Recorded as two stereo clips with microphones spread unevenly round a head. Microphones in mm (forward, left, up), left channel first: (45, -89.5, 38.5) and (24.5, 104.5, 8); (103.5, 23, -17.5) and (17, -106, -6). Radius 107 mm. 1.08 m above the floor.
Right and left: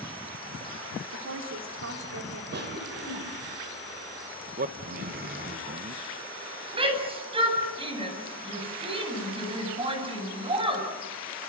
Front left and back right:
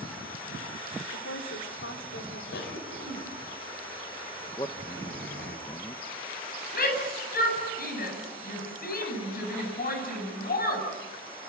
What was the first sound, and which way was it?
A woman speaking, 80° left.